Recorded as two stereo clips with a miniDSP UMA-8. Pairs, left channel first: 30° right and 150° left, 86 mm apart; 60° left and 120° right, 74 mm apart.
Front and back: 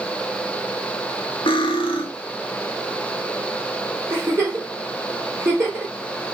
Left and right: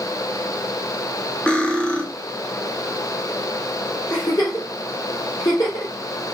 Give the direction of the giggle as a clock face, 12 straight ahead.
9 o'clock.